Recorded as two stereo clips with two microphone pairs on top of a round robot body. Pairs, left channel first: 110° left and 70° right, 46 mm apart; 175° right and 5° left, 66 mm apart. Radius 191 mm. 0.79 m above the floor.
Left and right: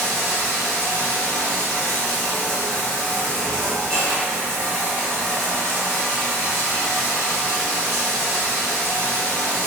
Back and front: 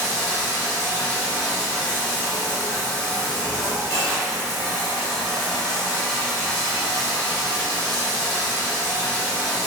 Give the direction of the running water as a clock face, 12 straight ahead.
10 o'clock.